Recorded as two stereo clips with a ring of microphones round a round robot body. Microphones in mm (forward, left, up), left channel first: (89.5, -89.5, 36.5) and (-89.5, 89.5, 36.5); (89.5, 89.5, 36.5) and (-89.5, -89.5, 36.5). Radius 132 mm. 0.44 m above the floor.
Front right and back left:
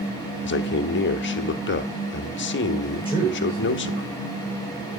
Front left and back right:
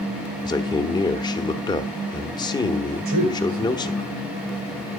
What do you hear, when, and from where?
0.4 s a man speaking: 25° right, 1.0 m
3.0 s a man speaking: 150° right, 9 m